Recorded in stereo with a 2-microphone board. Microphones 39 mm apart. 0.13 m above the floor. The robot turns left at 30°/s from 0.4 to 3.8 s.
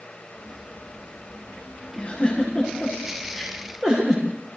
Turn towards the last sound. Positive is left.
turn(degrees=-15)  # may be behind; listen again after turning